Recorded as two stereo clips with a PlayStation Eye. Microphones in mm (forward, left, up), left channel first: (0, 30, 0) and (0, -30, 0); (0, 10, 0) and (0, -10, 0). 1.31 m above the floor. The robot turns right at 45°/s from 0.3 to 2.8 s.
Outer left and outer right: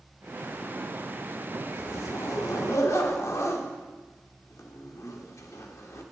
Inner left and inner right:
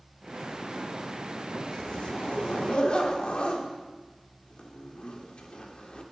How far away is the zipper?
About 1.4 m.